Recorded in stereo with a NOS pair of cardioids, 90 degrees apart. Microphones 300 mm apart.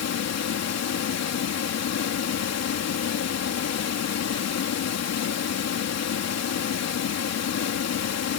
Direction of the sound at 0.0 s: 60° left.